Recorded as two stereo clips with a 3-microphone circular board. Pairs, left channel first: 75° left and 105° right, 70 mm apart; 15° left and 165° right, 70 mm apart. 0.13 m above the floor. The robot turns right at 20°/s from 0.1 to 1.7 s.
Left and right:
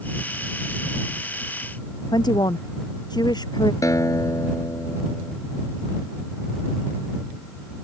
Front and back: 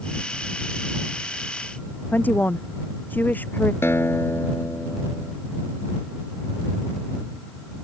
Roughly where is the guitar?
Ahead left.